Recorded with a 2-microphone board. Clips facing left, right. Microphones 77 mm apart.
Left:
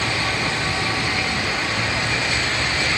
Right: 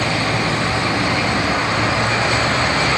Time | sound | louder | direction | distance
0.0 | a vehicle | right 4 dB | 45° right (ahead or behind) | ?